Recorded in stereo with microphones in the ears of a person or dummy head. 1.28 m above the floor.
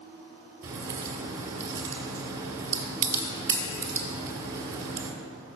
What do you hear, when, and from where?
0.6 s a crack: 20° right (ahead or behind), 2 m